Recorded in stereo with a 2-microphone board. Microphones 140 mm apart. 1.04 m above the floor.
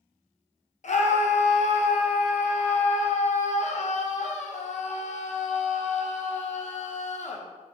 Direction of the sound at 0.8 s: 60° left (ahead or behind).